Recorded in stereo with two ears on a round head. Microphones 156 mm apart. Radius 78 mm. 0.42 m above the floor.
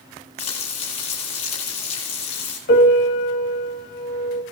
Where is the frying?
35° left (ahead or behind), 10 m.